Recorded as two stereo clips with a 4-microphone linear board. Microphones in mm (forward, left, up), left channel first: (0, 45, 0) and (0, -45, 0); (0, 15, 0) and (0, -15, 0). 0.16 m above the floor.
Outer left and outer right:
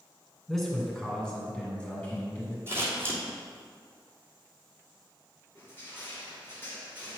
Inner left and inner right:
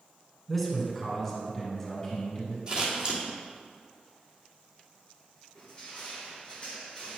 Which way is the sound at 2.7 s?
25° right (ahead or behind).